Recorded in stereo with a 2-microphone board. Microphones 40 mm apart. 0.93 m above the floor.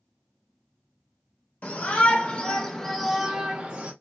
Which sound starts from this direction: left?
A shout, at 1.6 s.